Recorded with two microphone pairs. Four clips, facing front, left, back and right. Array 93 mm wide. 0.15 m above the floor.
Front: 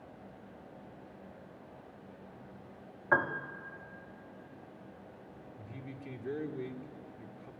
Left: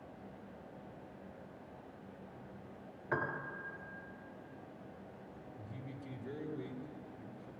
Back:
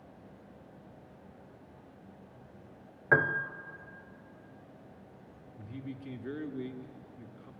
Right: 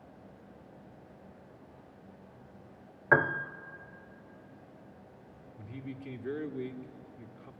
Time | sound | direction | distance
3.1 | a piano | 115° right | 0.9 m
5.6 | a man speaking | 120° right | 2 m